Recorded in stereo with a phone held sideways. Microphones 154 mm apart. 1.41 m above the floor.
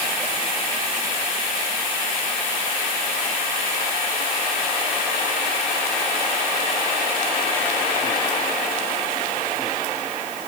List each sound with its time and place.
Only background noise.